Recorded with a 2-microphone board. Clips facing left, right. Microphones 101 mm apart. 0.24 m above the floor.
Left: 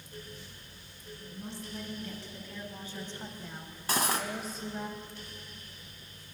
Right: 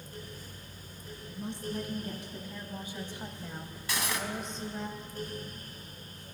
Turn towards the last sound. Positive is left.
turn(degrees=45)  # may be behind; listen again after turning